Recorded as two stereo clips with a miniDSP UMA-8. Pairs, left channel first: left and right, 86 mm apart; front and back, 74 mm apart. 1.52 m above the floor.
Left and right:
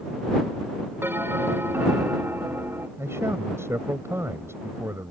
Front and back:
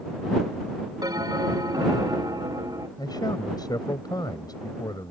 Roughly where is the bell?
Behind right.